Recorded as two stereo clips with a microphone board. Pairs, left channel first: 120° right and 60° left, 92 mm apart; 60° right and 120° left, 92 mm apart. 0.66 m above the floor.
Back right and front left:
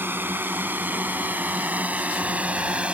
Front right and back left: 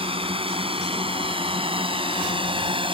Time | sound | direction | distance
0.0 | a drone | 130° left | ?